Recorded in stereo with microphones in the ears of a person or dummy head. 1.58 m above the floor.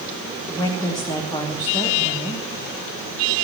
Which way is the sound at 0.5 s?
15° left (ahead or behind).